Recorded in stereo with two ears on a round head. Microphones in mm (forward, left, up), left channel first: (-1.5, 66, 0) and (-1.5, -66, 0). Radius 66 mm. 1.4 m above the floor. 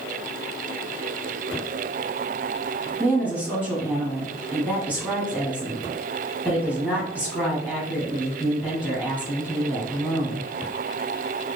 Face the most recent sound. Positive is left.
turn(degrees=15)  # may be behind; listen again after turning